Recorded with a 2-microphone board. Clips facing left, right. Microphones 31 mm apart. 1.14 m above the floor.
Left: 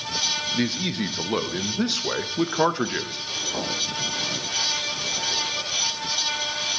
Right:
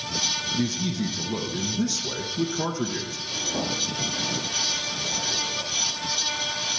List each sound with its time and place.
0.6 s a man speaking: 50° left (ahead or behind), 0.6 m
3.3 s a zipper: 25° left (ahead or behind), 5.5 m